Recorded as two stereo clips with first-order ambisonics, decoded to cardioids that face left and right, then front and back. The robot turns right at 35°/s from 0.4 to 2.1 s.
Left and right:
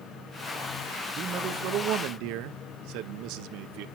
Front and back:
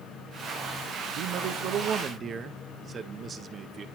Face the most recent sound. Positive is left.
turn(degrees=-115)